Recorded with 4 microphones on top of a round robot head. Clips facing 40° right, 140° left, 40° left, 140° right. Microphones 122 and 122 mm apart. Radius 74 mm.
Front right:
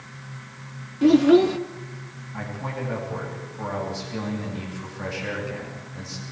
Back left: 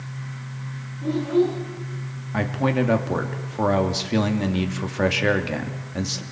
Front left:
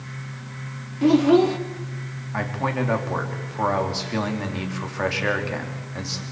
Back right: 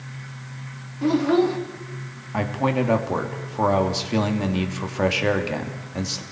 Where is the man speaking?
150° left, 2.5 m.